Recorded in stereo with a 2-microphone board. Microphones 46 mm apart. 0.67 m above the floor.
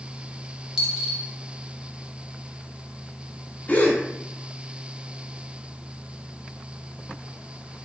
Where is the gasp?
30° left (ahead or behind), 0.6 m.